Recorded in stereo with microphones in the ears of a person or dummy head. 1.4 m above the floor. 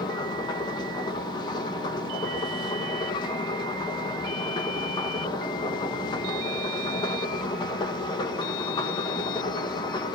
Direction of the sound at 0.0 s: 25° left (ahead or behind).